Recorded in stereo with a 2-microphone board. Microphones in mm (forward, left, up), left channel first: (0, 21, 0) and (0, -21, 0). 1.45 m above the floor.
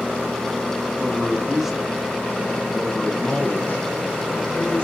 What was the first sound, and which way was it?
A man speaking, 25° right (ahead or behind).